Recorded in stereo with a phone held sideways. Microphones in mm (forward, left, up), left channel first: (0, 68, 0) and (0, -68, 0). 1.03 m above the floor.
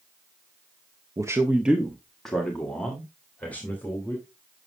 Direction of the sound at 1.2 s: 25° right (ahead or behind).